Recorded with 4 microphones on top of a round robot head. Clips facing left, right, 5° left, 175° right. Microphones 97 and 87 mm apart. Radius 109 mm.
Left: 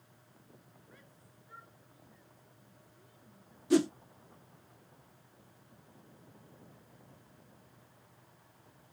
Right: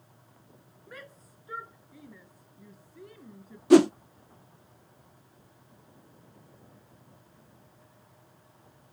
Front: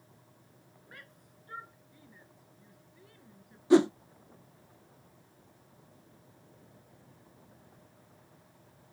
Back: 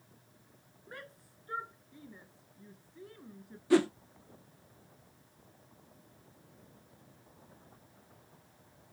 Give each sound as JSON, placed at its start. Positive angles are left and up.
{"t": 0.9, "sound": "a shout", "azimuth_deg": -110}
{"t": 3.7, "sound": "a whoosh", "azimuth_deg": -65}